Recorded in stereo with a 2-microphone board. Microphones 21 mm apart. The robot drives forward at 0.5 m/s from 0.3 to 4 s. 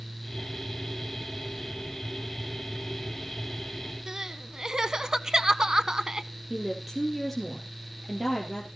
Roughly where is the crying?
Right.